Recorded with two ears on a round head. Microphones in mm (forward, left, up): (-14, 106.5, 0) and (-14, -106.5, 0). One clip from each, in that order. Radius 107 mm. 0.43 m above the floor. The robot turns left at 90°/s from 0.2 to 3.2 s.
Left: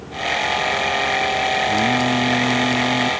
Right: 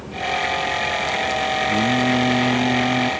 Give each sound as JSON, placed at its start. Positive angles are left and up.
{"t": 1.7, "sound": "singing", "azimuth_deg": -40}